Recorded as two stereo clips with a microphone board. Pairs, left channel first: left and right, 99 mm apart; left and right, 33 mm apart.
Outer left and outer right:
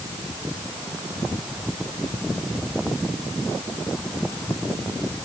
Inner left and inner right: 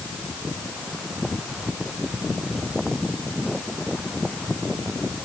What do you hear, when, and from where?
Only background noise.